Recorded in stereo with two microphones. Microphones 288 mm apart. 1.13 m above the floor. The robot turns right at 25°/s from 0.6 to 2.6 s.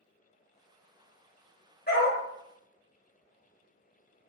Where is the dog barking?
35° left (ahead or behind), 1.0 m; by 2.2 s 30° left (ahead or behind), 1.0 m.